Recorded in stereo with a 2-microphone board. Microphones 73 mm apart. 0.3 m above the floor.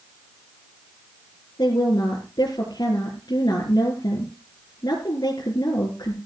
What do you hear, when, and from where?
1.6 s a woman speaking: 70° left (ahead or behind), 4 m